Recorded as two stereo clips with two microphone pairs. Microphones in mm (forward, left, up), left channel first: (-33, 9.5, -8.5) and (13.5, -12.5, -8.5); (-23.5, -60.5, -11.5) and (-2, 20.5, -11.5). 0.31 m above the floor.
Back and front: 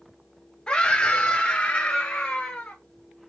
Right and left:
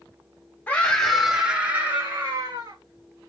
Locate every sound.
0.7 s a scream: 155° right, 1.1 m; by 2.8 s 100° left, 1.4 m